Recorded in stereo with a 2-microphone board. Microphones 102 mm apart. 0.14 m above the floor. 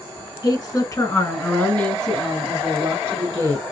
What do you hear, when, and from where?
0.4 s a woman speaking: 40° left (ahead or behind), 1.8 m; by 3.6 s 35° right (ahead or behind), 1.6 m